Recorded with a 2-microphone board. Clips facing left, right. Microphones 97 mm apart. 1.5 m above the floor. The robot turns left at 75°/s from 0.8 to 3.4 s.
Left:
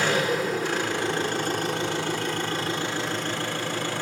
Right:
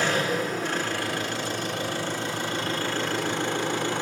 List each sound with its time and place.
0.0 s an engine running: 175° left, 3.5 m; by 4.0 s 20° right, 3.5 m